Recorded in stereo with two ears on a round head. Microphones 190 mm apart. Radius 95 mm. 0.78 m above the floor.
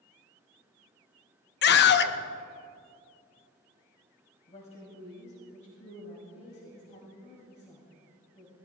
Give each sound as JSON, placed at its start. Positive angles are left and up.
{"t": 1.6, "sound": "a scream", "side_deg": 50, "distance_m": 0.8}
{"t": 4.5, "sound": "a woman speaking", "side_deg": 35, "distance_m": 5.0}